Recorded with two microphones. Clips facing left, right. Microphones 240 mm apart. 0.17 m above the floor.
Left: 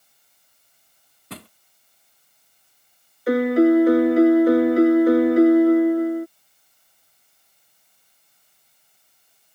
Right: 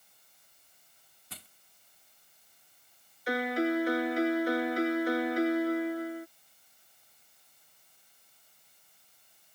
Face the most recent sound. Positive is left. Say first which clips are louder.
# left 14 dB
turn(degrees=60)  # may be behind; listen again after turning